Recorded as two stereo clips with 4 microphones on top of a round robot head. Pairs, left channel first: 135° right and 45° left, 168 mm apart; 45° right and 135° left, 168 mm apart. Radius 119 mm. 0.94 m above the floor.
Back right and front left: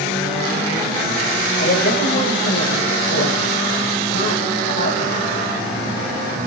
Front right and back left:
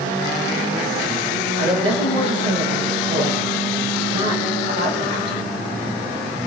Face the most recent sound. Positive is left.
turn(degrees=-165)